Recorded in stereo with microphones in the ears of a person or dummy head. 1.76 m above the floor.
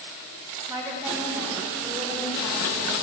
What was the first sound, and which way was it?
A woman speaking, 10° right (ahead or behind).